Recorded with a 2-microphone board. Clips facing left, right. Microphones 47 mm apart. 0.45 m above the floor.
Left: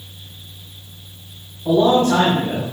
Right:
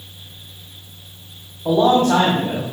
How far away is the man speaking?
About 2.5 m.